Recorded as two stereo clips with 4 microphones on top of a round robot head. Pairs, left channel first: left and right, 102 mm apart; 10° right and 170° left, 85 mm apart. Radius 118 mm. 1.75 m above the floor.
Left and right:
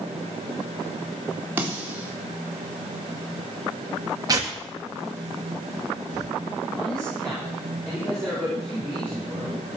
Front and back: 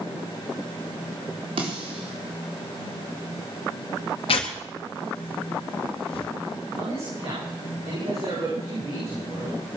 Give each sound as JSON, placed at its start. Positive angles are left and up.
{"t": 1.6, "sound": "a snare drum", "azimuth_deg": -160, "distance_m": 4.0}
{"t": 4.3, "sound": "tearing paper", "azimuth_deg": -30, "distance_m": 1.7}
{"t": 6.8, "sound": "a man speaking", "azimuth_deg": 175, "distance_m": 9.0}